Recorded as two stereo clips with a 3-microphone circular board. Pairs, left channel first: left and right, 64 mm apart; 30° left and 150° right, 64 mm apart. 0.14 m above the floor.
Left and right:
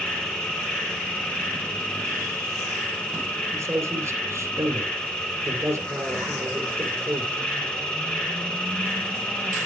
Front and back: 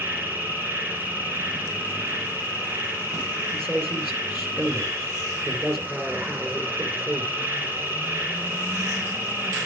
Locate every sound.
0.0 s an insect: 160° left, 2.5 m
3.5 s a man speaking: 105° right, 2.5 m